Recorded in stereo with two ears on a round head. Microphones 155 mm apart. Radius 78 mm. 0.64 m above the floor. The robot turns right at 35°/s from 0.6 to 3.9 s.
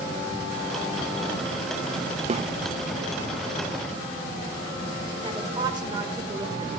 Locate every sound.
2.3 s a snare drum: 35° right (ahead or behind), 0.7 m; by 2.5 s 45° right (ahead or behind), 0.7 m
5.2 s a woman speaking: 25° right (ahead or behind), 2.5 m